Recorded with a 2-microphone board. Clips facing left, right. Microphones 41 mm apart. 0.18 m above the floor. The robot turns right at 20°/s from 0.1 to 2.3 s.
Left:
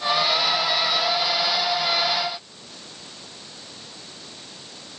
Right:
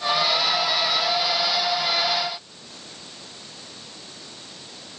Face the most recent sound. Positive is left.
No sound to turn to.